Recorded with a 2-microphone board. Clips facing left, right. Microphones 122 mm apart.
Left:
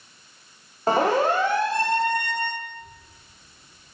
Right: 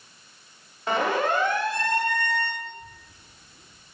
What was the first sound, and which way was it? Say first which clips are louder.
A siren: left 4 dB; 35° left (ahead or behind).